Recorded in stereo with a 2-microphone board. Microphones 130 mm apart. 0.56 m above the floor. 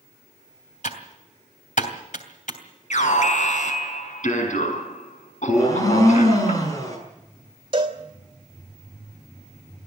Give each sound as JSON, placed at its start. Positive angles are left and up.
{"t": 0.8, "sound": "typing on a keyboard", "side_deg": 70, "distance_m": 2.5}
{"t": 2.9, "sound": "an alarm", "side_deg": 70, "distance_m": 5.0}
{"t": 5.5, "sound": "a blender", "side_deg": 25, "distance_m": 6.5}
{"t": 7.7, "sound": "a cowbell", "side_deg": -40, "distance_m": 2.5}